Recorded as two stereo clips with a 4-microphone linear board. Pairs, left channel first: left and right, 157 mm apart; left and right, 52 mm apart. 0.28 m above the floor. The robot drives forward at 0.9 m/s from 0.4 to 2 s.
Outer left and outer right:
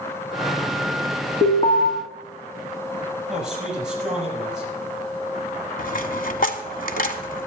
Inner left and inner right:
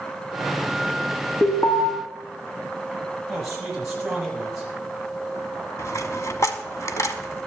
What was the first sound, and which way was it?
An alarm, 35° left (ahead or behind).